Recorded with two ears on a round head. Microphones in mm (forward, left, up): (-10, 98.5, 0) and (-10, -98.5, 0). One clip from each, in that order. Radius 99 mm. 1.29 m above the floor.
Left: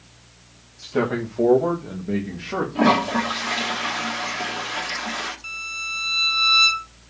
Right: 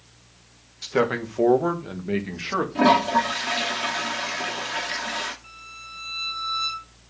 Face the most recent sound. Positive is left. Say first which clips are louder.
# left 12 dB
turn(degrees=45)  # may be behind; listen again after turning